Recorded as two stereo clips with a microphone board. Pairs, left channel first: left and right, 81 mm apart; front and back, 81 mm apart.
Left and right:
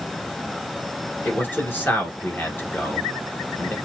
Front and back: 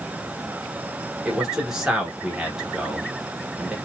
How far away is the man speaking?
About 1.1 m.